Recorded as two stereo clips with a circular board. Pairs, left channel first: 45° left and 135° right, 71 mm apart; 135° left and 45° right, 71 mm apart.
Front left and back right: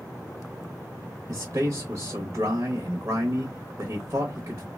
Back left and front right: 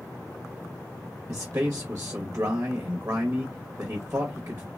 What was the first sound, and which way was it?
A man speaking, 90° right.